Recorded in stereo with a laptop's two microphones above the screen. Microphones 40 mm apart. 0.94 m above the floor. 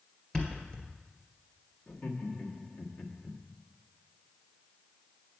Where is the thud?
25° left (ahead or behind), 1.7 m.